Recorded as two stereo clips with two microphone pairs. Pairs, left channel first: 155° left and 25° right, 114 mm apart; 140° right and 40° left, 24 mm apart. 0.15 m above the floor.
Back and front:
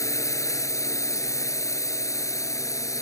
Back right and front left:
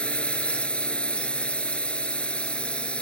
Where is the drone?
150° right.